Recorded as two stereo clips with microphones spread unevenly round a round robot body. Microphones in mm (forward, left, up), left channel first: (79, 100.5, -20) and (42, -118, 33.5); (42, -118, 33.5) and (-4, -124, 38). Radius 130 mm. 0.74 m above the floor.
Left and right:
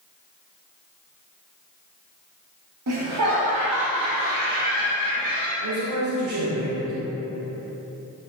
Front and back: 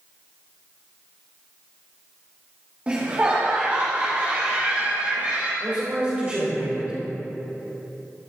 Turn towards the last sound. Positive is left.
turn(degrees=-115)